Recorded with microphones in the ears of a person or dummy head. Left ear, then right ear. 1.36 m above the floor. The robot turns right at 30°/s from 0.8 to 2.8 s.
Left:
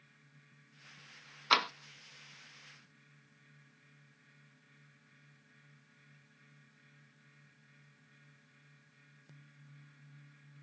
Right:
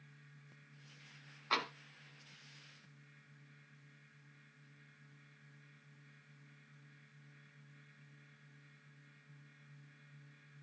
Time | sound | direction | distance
1.5 | tapping | 40° left (ahead or behind) | 0.8 m